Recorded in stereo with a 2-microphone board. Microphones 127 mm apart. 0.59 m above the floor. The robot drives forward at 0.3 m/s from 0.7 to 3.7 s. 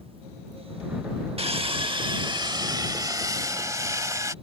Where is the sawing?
50° right (ahead or behind); by 4.3 s 25° right (ahead or behind).